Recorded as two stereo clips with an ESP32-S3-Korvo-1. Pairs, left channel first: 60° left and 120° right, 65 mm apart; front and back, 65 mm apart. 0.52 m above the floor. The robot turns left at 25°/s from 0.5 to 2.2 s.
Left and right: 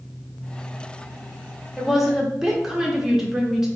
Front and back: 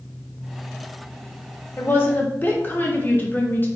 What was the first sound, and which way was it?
A woman speaking, 30° right.